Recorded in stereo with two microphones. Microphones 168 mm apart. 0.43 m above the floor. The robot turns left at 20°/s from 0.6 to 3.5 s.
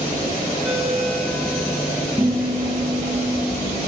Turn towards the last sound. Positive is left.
turn(degrees=-20)  # may be behind; listen again after turning